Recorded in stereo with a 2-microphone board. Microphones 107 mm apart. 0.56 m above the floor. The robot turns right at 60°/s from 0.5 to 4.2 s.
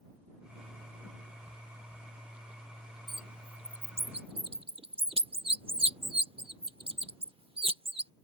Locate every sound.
3.1 s a bird: 45° right (ahead or behind); by 8.1 s 60° right (ahead or behind)